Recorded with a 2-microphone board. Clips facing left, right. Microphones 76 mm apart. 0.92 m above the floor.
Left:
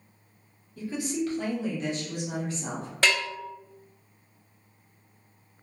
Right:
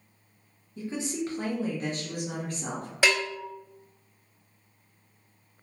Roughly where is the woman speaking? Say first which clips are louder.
Left 2 dB; right.